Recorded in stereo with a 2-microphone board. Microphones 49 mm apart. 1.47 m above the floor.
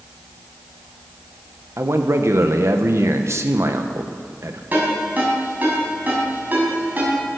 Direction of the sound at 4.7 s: 35° right (ahead or behind).